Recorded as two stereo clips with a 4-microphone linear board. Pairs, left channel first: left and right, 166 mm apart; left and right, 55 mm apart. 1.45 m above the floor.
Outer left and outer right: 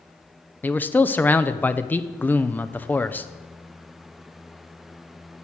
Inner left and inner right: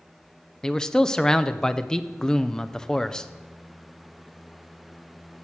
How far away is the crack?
No crack in this recording.